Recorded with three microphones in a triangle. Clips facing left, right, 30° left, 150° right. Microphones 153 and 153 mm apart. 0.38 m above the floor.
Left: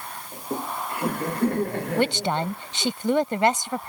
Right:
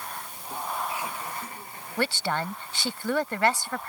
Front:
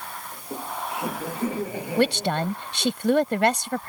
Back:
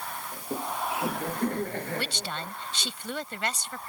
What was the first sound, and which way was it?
Laughter, 130° left.